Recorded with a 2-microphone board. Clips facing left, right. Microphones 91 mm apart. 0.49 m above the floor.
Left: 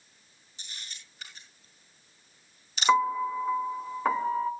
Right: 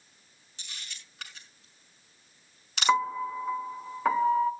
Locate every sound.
0.6 s a camera shutter: 65° right (ahead or behind), 5 m
2.9 s a piano: 5° left (ahead or behind), 0.8 m